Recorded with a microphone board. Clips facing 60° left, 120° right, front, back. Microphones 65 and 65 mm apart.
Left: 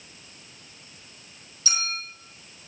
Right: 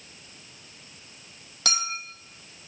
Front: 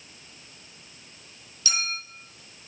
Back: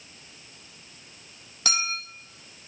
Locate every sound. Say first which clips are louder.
1.6 s a clink: right 2 dB, back 2 dB; 140° right, 3 m